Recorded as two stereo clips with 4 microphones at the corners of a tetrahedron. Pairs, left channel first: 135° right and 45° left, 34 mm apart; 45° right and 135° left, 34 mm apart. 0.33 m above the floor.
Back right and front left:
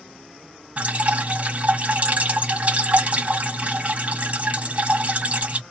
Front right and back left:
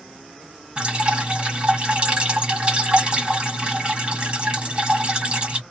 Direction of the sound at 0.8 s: 80° left.